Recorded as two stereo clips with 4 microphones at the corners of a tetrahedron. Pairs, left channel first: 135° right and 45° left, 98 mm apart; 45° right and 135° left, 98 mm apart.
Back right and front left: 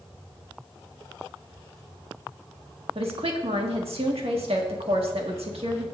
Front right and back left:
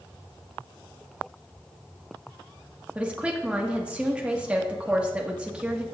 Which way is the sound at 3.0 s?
55° left.